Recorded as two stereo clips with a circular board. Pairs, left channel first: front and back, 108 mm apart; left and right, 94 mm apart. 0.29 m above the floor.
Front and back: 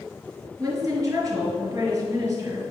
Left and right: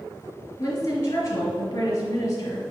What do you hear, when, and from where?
0.6 s a woman speaking: 125° left, 1.4 m